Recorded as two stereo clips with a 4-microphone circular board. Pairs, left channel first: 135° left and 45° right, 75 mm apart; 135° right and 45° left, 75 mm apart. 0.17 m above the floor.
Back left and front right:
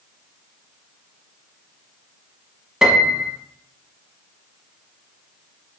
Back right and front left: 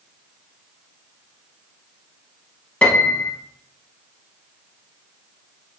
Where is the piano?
110° right, 0.5 m.